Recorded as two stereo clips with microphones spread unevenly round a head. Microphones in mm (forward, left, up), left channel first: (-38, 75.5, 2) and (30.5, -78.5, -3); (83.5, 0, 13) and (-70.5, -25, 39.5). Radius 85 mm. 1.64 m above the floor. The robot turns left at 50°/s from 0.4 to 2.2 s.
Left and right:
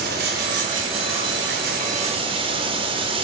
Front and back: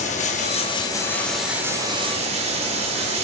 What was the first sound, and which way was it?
Running water, 35° right.